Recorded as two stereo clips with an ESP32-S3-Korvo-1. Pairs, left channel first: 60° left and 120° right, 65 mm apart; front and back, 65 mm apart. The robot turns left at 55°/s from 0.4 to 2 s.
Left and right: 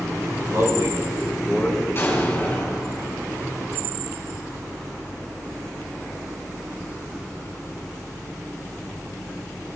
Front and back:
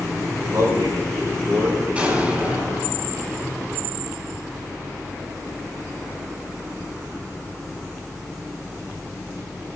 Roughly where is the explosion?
Behind left.